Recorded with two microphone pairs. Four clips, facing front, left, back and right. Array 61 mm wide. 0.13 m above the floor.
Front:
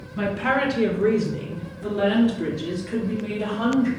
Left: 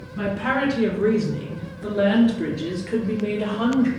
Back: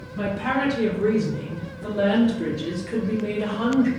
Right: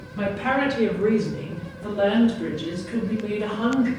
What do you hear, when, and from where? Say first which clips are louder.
0.2 s a woman speaking: even, front 2 dB; 10° left, 1.3 m; by 3.9 s 95° left, 2.5 m